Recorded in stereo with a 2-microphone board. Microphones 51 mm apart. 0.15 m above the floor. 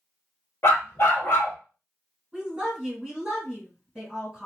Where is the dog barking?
50° left (ahead or behind), 1.0 m.